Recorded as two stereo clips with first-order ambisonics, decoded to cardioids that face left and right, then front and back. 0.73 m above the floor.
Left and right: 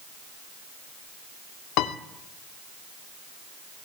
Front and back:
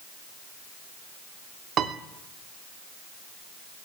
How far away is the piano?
About 0.5 m.